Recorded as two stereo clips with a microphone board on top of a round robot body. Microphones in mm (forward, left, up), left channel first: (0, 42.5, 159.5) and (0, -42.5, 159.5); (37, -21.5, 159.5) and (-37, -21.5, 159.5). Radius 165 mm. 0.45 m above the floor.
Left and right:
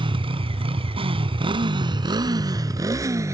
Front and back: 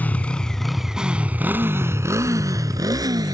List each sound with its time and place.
0.0 s a motorcycle: 70° right; by 3.3 s 145° right